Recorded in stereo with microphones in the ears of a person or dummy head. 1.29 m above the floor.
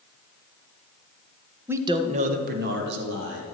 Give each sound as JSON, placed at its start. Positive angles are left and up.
{"t": 1.7, "sound": "a man speaking", "side_deg": -10, "distance_m": 1.0}